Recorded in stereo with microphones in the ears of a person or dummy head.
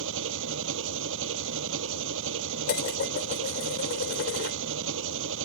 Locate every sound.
0.0 s an engine running: 75° right (ahead or behind)
2.7 s dishes clattering: 55° left (ahead or behind)